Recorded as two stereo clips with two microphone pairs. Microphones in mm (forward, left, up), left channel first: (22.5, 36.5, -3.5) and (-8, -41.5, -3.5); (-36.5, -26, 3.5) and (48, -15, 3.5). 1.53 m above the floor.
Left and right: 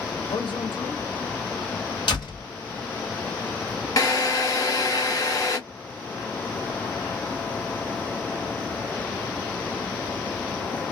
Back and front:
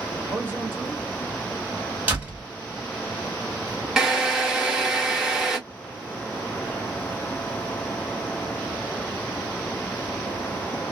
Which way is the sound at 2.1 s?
75° left.